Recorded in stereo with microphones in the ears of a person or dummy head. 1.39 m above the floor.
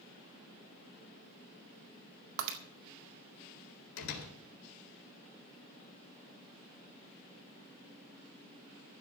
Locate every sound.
2.4 s breaking glass: 75° right (ahead or behind), 2 m
4.0 s a door slam: 80° left, 4 m